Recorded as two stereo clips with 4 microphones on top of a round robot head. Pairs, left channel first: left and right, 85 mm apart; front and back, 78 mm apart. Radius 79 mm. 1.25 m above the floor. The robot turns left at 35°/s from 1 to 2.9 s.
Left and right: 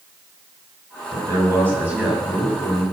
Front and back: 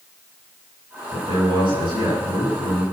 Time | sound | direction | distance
1.1 | a man speaking | 140° right | 7.5 m